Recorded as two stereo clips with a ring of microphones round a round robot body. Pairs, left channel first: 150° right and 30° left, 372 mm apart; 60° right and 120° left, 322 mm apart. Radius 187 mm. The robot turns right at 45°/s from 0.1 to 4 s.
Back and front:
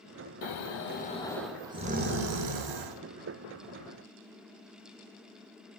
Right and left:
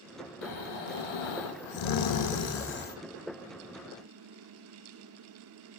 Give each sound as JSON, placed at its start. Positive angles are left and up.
{"t": 0.4, "sound": "snoring", "azimuth_deg": -110, "distance_m": 0.7}